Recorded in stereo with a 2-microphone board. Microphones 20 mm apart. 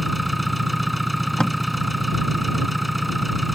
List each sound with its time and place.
0.0 s an engine running: 5° right (ahead or behind)
1.4 s tape being pulled: 45° left (ahead or behind)